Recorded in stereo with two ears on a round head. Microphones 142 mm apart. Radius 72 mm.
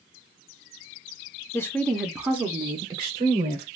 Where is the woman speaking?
15° left (ahead or behind), 0.9 m; by 3.7 s 40° right (ahead or behind), 1.3 m.